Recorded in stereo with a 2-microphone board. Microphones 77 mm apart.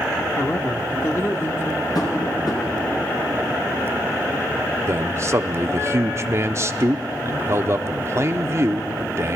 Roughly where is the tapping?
Left.